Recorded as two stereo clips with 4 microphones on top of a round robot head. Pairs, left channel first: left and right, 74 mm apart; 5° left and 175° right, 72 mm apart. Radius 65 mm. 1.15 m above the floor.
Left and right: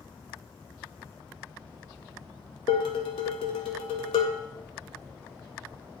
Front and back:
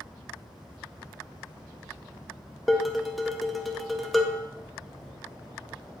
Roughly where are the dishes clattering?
Left.